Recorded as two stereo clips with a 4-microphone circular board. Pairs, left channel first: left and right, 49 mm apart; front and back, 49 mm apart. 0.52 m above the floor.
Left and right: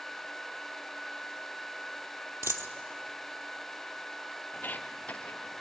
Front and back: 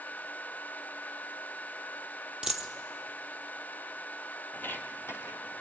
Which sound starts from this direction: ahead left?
Footsteps, at 4.5 s.